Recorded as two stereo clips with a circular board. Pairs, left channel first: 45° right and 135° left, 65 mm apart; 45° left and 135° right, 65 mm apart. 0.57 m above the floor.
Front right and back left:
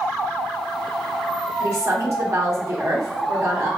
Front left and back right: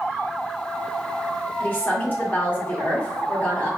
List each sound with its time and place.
1.6 s a woman speaking: 105° left, 1.8 m